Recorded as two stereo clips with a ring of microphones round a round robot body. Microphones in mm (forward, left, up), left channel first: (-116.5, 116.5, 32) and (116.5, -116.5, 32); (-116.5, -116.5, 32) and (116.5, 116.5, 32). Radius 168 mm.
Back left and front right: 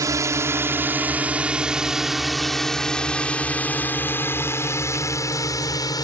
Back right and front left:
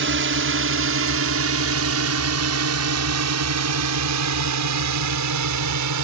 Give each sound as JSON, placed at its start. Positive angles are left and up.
{"t": 0.0, "sound": "a drone", "azimuth_deg": 30}